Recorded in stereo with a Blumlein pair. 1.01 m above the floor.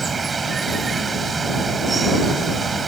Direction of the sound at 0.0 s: 15° right.